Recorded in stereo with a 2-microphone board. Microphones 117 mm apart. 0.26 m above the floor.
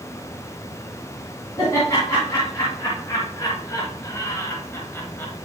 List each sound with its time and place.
1.6 s laughter: 30° left (ahead or behind), 2.5 m; by 5.3 s 15° left (ahead or behind), 1.4 m